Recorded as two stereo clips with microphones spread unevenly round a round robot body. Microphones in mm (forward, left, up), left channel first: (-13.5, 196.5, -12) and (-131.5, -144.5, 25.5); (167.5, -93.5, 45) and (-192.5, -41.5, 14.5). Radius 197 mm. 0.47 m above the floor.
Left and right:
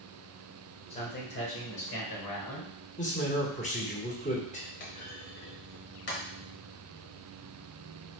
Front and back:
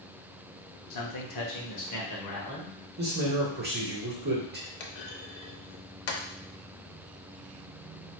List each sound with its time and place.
0.9 s a man speaking: 5° left, 1.1 m; by 2.7 s 45° left, 1.8 m
3.0 s a man speaking: 125° left, 1.8 m
4.8 s a clunk: 10° left, 0.8 m